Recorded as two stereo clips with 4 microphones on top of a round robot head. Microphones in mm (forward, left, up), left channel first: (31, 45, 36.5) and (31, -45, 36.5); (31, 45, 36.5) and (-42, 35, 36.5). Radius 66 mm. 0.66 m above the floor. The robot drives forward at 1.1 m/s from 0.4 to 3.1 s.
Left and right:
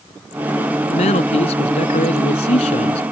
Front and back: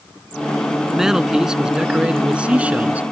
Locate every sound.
0.9 s a man speaking: 105° left; by 3.0 s 115° left